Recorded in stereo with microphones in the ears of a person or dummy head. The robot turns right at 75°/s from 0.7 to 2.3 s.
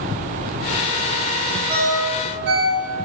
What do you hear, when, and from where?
1.7 s a ringtone: 20° right (ahead or behind), 1.6 m; by 3.1 s 60° right (ahead or behind), 1.6 m